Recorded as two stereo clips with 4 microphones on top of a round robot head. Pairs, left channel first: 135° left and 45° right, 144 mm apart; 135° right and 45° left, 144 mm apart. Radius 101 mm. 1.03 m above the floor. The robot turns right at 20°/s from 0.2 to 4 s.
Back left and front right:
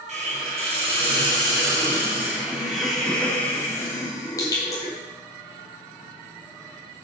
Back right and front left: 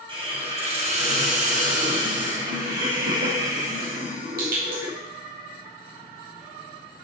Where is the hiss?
10° right, 3.5 m; by 4.9 s 65° left, 3.5 m.